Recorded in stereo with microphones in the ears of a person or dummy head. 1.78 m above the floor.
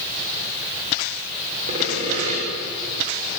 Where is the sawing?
45° right (ahead or behind), 6 m.